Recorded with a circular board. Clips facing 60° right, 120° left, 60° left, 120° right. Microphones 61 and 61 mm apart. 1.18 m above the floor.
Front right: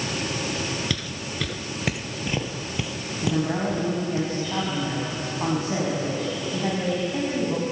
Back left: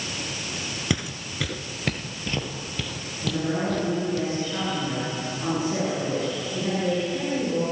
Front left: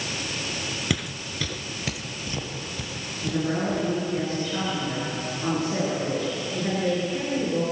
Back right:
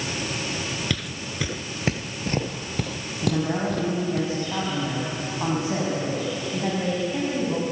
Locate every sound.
0.9 s footsteps: 115° left, 1.1 m; by 4.2 s 125° right, 3.5 m
3.2 s a woman speaking: 95° right, 8 m